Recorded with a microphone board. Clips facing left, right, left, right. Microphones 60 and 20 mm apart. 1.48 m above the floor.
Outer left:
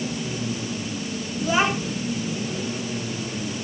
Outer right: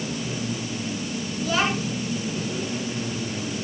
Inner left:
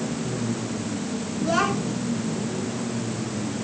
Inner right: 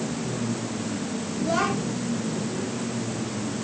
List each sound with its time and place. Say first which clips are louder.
1.4 s a child speaking: outer left 2 dB, inner left 2 dB; 15° left (ahead or behind), 2 m